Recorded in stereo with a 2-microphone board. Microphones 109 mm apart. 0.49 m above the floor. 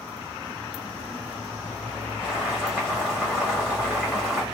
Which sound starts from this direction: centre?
Boiling, at 2.2 s.